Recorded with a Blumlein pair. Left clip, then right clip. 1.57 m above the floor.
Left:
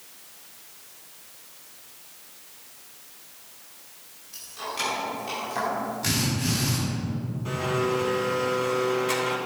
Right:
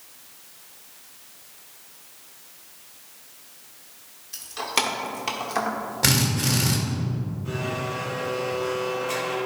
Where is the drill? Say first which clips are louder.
Right 7 dB; 35° right, 2 m.